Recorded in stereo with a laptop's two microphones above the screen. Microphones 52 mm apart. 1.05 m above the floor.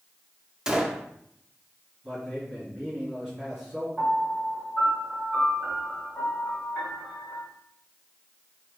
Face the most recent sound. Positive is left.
turn(degrees=5)  # may be behind; listen again after turning